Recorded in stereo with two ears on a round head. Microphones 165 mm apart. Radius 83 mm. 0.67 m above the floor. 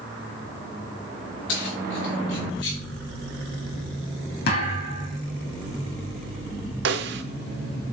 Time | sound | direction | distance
1.5 | keys jangling | 70° left (ahead or behind) | 6 m
4.5 | a thud | 55° left (ahead or behind) | 4.5 m
6.8 | a snare drum | 65° right (ahead or behind) | 1.2 m